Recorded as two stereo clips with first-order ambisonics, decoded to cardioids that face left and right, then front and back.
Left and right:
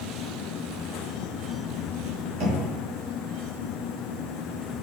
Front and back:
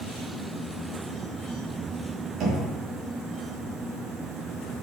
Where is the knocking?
135° right, 3 m.